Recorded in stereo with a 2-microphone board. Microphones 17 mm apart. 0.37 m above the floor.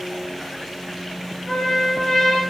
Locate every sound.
1.5 s a trumpet: 15° left (ahead or behind), 1.3 m